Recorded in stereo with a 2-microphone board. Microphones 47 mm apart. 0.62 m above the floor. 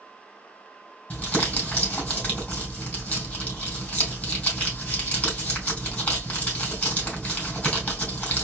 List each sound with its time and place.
1.1 s crumpling: 30° left (ahead or behind), 3 m